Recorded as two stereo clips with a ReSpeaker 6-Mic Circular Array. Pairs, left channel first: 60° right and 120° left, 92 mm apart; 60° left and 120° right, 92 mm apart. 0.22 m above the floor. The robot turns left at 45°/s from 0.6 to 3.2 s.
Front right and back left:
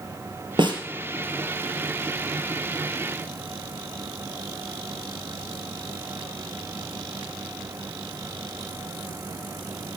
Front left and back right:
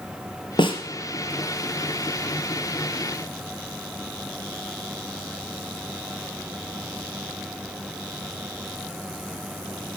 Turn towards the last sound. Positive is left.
turn(degrees=-25)